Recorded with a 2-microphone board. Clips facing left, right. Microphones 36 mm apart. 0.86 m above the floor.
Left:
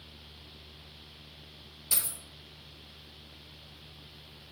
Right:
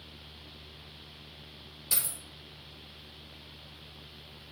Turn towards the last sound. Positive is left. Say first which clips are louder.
# even
turn(degrees=-15)  # may be behind; listen again after turning